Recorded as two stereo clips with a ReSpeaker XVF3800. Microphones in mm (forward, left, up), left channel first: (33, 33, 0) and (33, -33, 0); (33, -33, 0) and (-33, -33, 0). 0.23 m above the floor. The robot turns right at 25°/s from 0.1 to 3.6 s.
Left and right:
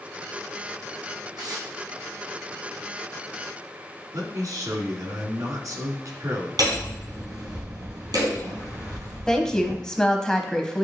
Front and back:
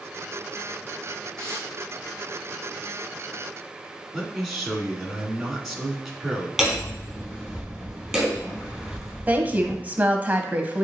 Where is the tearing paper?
80° right, 2.5 m; by 1.7 s 70° right, 2.5 m.